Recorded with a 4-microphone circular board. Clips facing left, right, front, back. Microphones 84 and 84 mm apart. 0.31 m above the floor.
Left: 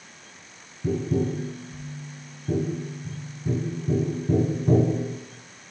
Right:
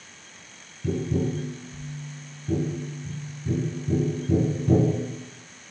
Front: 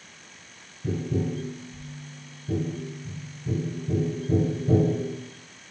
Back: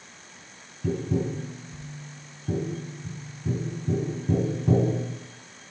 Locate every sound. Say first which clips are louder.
0.8 s tapping: left 1 dB, back 1 dB; 150° left, 2.5 m